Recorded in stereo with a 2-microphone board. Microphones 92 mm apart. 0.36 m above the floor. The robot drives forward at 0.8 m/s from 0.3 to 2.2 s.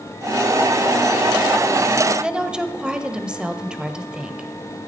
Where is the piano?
I don't hear a piano.